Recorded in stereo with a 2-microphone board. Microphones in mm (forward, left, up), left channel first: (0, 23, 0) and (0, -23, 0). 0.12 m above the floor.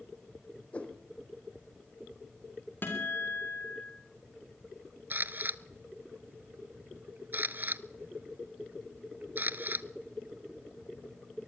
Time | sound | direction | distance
0.7 | a whoosh | 25° left (ahead or behind) | 2.5 m
2.8 | a guitar | 45° left (ahead or behind) | 5.5 m
5.1 | a camera shutter | 45° right (ahead or behind) | 0.5 m